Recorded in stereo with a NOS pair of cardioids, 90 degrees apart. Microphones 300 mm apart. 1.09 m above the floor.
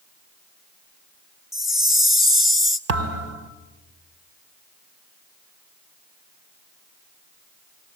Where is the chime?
Straight ahead, 1.9 m.